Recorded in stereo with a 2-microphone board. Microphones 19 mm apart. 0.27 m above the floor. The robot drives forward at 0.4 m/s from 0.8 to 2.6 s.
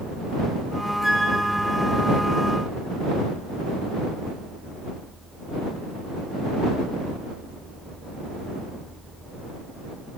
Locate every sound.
1.0 s a flute: 10° right (ahead or behind), 2 m; by 1.4 s 15° right (ahead or behind), 1.9 m